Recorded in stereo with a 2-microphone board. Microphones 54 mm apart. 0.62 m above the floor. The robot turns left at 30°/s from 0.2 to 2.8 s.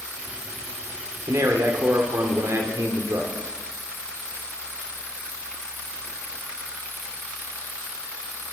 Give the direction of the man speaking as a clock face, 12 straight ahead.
3 o'clock.